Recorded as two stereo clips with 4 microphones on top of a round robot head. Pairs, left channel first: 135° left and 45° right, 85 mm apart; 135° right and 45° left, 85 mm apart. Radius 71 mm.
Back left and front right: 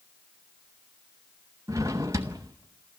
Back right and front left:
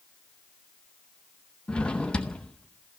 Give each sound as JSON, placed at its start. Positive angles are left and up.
{"t": 1.7, "sound": "a drawer", "azimuth_deg": -65, "distance_m": 0.7}